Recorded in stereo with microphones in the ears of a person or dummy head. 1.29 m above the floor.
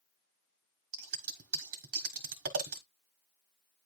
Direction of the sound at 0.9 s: 65° right (ahead or behind).